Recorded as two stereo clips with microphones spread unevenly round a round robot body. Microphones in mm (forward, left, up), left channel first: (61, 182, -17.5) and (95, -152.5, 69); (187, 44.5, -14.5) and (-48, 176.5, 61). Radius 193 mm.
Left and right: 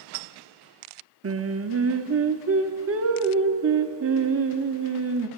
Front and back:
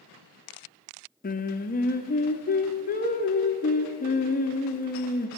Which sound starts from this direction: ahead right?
Singing, at 1.2 s.